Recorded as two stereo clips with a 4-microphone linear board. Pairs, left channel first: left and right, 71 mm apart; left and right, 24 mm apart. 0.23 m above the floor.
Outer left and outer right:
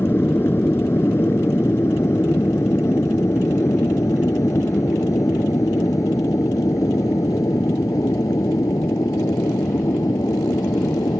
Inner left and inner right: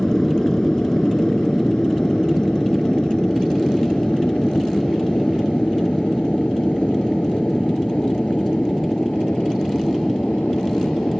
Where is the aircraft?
30° left (ahead or behind); by 11.2 s 55° left (ahead or behind).